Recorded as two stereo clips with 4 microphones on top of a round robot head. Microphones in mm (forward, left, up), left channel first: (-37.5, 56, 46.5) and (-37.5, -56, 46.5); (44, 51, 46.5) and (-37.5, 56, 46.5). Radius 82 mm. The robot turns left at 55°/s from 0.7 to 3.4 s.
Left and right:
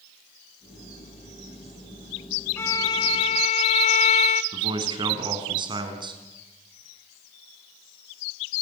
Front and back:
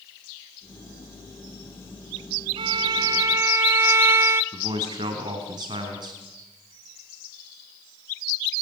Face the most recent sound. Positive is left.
turn(degrees=-135)